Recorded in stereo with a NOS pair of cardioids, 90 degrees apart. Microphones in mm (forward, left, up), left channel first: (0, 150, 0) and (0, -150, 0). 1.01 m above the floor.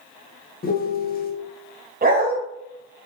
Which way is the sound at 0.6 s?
30° left.